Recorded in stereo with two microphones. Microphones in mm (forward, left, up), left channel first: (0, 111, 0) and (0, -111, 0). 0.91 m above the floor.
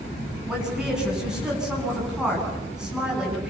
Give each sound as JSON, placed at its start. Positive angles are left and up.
{"t": 0.5, "sound": "a woman speaking", "side_deg": -5, "distance_m": 10.0}